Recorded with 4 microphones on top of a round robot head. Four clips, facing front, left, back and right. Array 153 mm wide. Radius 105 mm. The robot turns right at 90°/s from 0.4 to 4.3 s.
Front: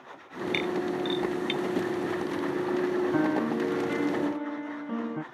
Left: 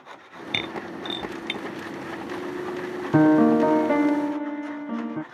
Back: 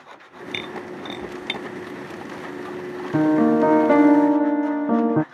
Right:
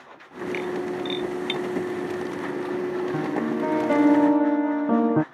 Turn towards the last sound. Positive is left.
turn(degrees=-145)